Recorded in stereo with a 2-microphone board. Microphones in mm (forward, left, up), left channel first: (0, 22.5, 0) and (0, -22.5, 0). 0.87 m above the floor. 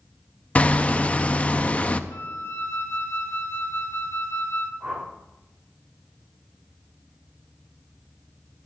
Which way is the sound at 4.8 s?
20° right (ahead or behind).